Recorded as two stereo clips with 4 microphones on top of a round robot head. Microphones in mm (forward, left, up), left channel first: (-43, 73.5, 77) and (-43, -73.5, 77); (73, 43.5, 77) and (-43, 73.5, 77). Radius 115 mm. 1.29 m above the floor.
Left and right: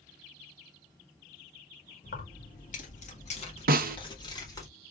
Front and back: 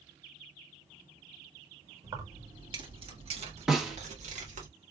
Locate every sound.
2.0 s keys jangling: 105° left, 2 m; by 4.7 s 155° left, 2.5 m
3.7 s a snare drum: 105° right, 0.6 m